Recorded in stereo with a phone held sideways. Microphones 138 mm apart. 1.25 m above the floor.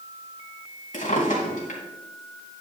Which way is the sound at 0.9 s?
70° left (ahead or behind).